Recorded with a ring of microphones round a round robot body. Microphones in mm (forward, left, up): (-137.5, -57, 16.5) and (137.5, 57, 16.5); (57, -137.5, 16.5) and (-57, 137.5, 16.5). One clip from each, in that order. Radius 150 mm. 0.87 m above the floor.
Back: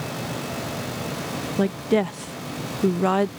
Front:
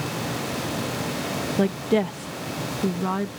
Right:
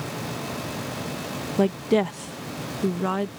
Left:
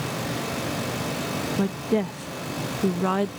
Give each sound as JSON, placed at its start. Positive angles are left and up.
{"t": 1.6, "sound": "a woman speaking", "azimuth_deg": -70}